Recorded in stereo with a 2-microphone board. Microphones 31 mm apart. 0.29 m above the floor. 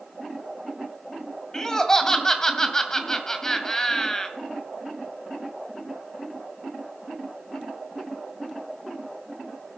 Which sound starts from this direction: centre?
Laughter, at 1.5 s.